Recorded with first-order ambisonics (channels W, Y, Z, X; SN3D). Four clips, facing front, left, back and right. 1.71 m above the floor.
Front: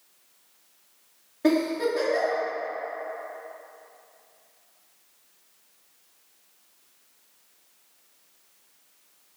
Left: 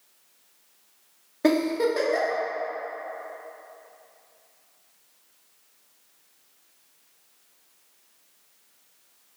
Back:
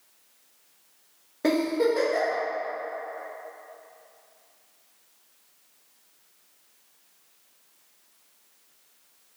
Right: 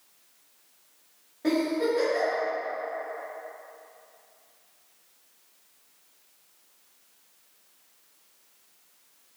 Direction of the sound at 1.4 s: 110° left.